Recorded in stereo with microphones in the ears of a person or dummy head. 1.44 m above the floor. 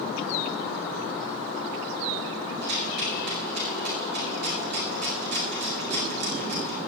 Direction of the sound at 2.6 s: 60° right (ahead or behind).